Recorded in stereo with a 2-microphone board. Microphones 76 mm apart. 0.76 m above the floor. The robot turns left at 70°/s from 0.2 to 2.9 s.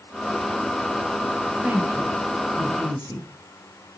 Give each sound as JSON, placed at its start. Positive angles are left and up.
{"t": 1.6, "sound": "a woman speaking", "side_deg": -15, "distance_m": 3.5}